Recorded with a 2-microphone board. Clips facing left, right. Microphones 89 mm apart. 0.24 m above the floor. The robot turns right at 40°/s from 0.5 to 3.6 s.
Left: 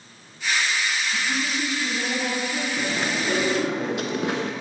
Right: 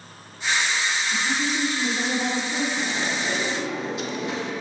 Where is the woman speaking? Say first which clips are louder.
Right 1 dB; 65° right, 3 m; by 2.7 s straight ahead, 3 m.